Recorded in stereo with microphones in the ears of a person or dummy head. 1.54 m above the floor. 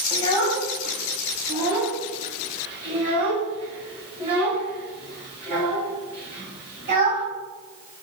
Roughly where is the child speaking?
Left.